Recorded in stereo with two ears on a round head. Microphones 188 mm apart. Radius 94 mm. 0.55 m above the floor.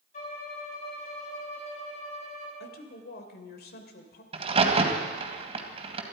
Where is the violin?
40° left (ahead or behind), 5 m.